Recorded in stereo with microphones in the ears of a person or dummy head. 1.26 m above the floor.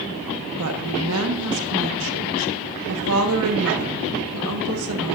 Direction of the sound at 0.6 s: 75° right (ahead or behind).